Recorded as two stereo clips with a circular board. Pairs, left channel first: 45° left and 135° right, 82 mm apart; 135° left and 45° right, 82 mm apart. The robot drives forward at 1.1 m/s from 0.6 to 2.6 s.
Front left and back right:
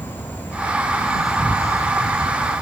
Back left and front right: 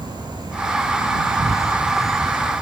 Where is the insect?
20° right, 1.3 m; by 2.6 s 160° right, 1.2 m.